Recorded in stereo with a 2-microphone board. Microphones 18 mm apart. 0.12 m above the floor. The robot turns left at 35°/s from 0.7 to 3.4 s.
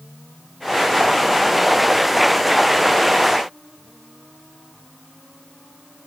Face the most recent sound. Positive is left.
No sound to turn to.